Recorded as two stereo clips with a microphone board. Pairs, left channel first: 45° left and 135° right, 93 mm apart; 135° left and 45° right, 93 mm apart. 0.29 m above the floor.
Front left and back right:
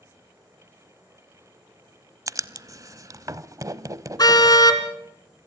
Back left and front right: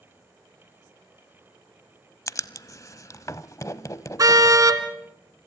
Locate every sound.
2.3 s writing: straight behind, 0.7 m
4.2 s a car horn: 5° left, 2 m